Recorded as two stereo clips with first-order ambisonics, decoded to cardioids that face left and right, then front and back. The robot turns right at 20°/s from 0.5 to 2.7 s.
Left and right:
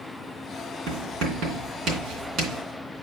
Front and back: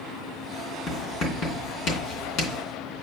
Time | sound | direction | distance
0.9 | writing | 65° right | 2.5 m